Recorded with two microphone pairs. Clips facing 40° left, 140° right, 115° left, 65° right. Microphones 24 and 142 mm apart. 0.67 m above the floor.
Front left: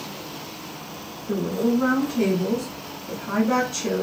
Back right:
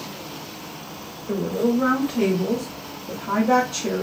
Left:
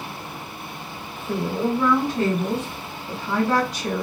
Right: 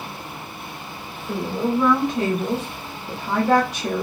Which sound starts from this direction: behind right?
A woman speaking, at 1.3 s.